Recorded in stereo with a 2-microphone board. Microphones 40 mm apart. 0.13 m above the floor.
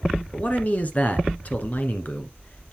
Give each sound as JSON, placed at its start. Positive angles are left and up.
{"t": 0.3, "sound": "a man speaking", "side_deg": 40, "distance_m": 1.7}